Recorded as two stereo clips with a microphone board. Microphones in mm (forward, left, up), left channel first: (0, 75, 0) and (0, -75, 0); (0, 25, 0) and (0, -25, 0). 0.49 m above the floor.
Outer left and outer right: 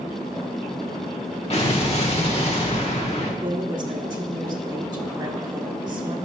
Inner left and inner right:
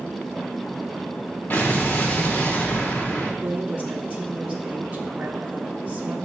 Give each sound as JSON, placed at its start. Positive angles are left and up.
{"t": 1.5, "sound": "an explosion", "side_deg": 45, "distance_m": 1.1}
{"t": 3.4, "sound": "a woman speaking", "side_deg": -30, "distance_m": 0.9}